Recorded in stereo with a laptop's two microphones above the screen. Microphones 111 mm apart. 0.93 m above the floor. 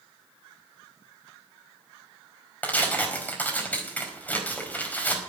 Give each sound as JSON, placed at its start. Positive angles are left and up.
{"t": 2.6, "sound": "tearing paper", "side_deg": 15, "distance_m": 4.5}